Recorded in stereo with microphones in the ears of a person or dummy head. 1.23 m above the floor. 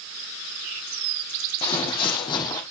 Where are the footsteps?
30° left (ahead or behind), 2.5 m; by 2.6 s 20° left (ahead or behind), 2 m.